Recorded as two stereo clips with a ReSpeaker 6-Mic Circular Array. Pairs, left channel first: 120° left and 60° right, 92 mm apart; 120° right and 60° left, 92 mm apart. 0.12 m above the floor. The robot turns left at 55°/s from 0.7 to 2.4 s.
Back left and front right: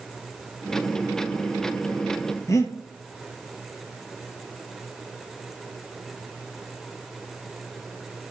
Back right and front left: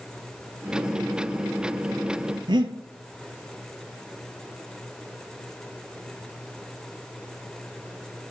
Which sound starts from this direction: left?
Breathing, at 2.5 s.